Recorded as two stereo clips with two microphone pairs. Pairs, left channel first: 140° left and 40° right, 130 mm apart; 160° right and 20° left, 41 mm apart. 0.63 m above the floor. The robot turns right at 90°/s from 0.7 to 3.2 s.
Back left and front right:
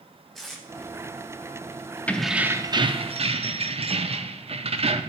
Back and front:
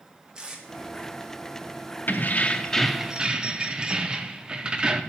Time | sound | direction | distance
0.3 | tape being pulled | 55° left | 1.2 m
2.1 | keys jangling | 145° right | 0.5 m